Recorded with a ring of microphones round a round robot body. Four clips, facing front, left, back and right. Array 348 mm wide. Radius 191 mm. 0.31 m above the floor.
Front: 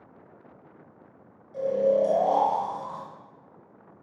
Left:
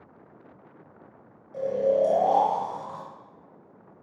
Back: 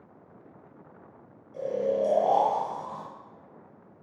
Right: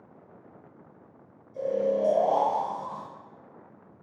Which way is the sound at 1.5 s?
80° left.